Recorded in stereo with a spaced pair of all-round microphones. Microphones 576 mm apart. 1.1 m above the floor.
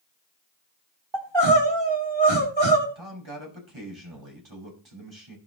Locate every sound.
1.1 s crying: 45° right (ahead or behind), 2.5 m
3.0 s a man speaking: 50° right (ahead or behind), 6 m